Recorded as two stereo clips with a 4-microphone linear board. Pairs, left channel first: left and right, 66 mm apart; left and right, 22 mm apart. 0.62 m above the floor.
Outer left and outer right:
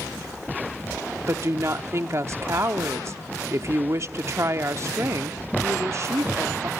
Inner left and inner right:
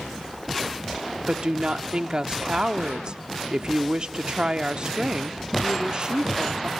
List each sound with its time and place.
1.3 s a woman speaking: 45° right (ahead or behind), 1.0 m